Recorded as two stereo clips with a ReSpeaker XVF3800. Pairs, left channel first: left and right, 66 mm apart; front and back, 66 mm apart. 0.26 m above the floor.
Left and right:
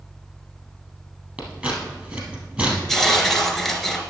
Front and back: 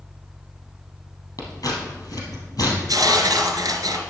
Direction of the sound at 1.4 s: 25° right.